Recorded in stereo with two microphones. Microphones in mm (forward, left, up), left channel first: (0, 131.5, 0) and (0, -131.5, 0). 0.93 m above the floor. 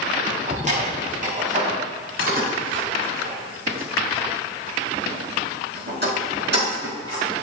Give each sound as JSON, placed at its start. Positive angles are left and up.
{"t": 0.5, "sound": "keys jangling", "side_deg": -30, "distance_m": 4.5}